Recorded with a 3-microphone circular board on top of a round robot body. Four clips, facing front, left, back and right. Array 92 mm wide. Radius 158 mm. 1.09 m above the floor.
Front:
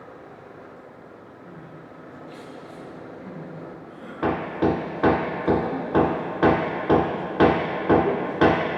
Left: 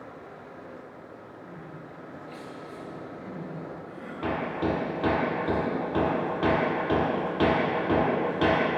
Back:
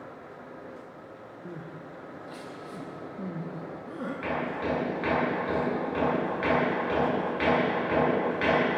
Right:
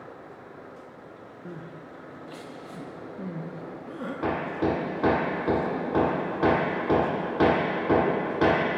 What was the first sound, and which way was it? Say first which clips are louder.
Crying: right 4 dB, back 3 dB; 130° right.